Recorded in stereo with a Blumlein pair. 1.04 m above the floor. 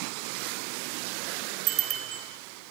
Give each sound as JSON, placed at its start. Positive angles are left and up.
{"t": 1.7, "sound": "a bicycle bell", "azimuth_deg": -35, "distance_m": 3.0}